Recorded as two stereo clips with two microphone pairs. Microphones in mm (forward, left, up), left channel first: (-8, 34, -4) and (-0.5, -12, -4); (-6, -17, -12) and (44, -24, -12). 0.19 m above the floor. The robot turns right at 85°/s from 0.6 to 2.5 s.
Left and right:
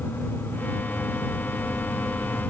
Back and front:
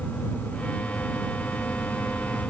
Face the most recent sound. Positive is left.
No sound to turn to.